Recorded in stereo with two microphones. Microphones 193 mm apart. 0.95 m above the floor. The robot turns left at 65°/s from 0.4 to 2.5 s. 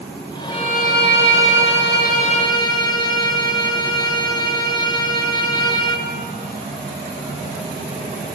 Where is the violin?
150° left, 1.1 m; by 6.1 s 25° left, 1.1 m.